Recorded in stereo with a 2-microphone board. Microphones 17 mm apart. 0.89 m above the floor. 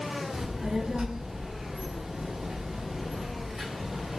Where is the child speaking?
30° right (ahead or behind), 1.0 m.